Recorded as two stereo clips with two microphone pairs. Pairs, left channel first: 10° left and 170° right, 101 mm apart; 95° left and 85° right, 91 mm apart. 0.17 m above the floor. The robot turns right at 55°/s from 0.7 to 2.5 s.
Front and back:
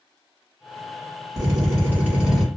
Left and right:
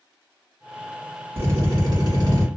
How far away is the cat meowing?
I don't hear a cat meowing.